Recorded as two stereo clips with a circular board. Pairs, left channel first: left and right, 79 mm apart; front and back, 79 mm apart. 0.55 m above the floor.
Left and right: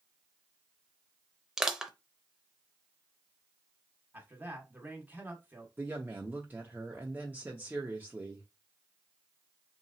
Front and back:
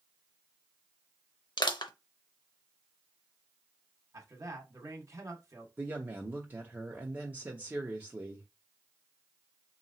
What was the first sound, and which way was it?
Crushing, 10° right.